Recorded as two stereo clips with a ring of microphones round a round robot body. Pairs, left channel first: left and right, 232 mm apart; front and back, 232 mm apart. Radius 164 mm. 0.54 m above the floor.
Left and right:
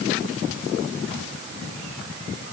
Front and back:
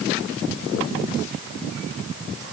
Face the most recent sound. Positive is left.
No sound to turn to.